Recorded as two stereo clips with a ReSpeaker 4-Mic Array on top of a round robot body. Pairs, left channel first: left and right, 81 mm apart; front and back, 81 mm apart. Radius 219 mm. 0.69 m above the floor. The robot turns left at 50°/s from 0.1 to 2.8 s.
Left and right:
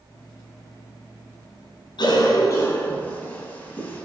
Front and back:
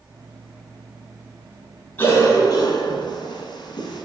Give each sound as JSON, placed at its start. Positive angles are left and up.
{"t": 2.0, "sound": "a cough", "azimuth_deg": 70, "distance_m": 6.5}